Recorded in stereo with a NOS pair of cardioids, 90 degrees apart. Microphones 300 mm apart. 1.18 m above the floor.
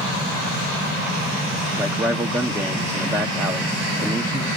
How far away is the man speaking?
About 0.8 m.